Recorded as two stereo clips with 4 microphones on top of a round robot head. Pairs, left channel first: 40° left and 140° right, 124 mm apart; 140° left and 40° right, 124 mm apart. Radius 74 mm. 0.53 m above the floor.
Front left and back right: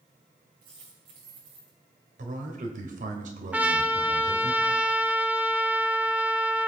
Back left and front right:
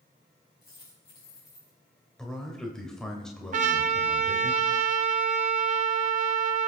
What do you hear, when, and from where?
0.6 s a dropped coin: 160° right, 6.5 m
2.2 s a man speaking: 135° right, 2 m
3.5 s a trumpet: 60° right, 0.8 m